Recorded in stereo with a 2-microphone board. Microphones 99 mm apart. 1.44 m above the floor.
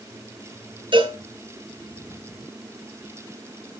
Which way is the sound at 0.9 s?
60° right (ahead or behind).